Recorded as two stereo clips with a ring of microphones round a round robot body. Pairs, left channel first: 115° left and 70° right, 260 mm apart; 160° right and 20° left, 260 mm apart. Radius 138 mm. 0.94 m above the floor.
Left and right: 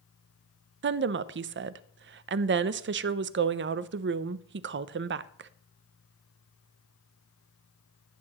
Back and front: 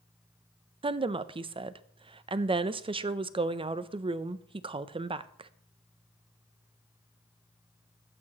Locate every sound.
0.8 s a woman speaking: 40° right, 0.5 m